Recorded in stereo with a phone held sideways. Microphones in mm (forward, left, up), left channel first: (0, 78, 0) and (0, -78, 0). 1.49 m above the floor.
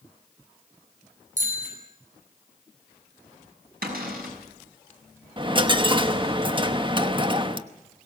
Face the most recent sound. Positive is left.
turn(degrees=-30)  # may be behind; listen again after turning